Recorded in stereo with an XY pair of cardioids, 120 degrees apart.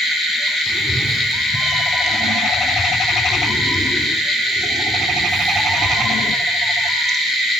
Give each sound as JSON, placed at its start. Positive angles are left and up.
{"t": 0.7, "sound": "a cat meowing", "azimuth_deg": -10, "distance_m": 3.0}